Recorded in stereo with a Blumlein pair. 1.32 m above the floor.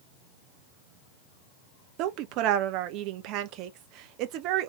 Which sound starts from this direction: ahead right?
A woman speaking, at 2.0 s.